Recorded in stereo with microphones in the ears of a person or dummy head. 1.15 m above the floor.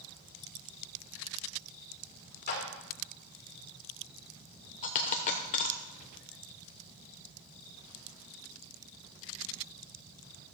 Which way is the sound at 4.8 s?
35° left (ahead or behind).